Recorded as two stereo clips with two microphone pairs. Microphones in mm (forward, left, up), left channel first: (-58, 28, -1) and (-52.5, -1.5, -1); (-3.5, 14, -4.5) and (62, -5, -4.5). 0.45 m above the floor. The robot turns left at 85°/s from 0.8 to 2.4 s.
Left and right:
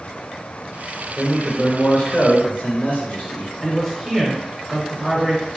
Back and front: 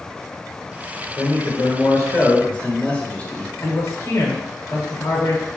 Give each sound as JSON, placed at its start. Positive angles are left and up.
{"t": 1.2, "sound": "a man speaking", "azimuth_deg": -160, "distance_m": 1.2}
{"t": 3.6, "sound": "a man speaking", "azimuth_deg": 180, "distance_m": 1.0}